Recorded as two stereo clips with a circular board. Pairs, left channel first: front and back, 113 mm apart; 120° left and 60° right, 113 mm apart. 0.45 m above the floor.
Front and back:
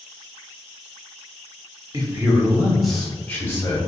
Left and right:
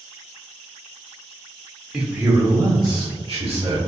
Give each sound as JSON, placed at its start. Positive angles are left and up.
{"t": 1.9, "sound": "a man speaking", "azimuth_deg": -145, "distance_m": 0.9}